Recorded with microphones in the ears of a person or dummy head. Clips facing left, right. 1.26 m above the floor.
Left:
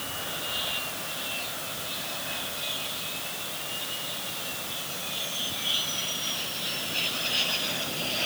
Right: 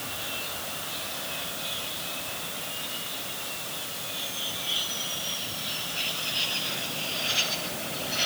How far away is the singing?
No singing in this recording.